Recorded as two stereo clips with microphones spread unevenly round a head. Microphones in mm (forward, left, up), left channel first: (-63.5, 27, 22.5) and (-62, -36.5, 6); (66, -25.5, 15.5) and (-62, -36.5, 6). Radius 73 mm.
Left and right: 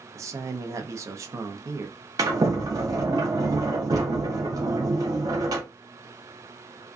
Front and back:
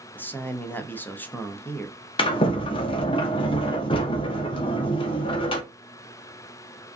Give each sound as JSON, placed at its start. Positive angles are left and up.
{"t": 0.1, "sound": "a man speaking", "azimuth_deg": -70, "distance_m": 0.5}
{"t": 2.2, "sound": "a sliding door", "azimuth_deg": -40, "distance_m": 0.6}